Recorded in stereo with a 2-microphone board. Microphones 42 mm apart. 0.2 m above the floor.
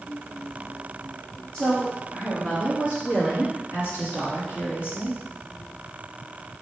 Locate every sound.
1.5 s a woman speaking: 30° left (ahead or behind), 1.8 m; by 5.2 s 60° left (ahead or behind), 2 m